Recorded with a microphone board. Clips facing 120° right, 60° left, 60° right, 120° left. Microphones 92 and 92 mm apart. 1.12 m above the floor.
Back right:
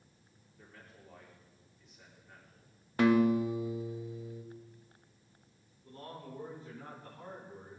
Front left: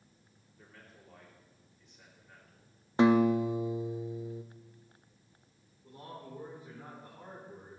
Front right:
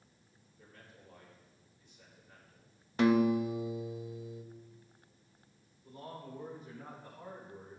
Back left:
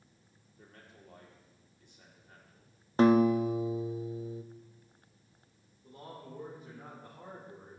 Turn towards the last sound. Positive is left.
turn(degrees=125)